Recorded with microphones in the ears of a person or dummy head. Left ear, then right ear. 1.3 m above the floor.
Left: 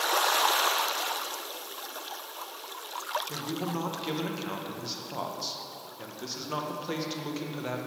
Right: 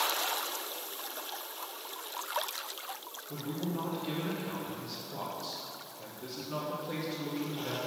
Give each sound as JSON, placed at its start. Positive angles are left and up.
{"t": 3.3, "sound": "a man speaking", "side_deg": 80, "distance_m": 1.0}